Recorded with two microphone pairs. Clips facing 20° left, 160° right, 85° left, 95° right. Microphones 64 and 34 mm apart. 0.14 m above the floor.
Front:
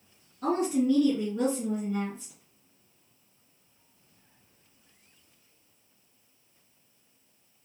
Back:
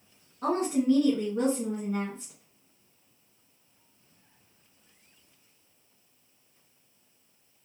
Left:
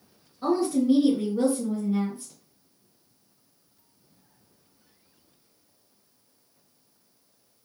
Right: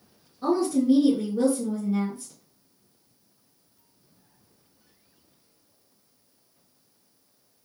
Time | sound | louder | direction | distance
0.4 | a woman speaking | even, right 1 dB | 165° left | 2 m